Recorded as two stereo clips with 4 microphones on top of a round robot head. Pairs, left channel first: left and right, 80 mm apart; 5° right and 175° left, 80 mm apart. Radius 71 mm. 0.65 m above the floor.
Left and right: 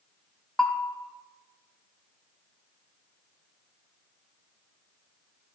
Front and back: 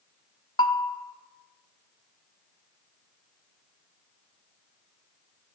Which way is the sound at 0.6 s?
5° left.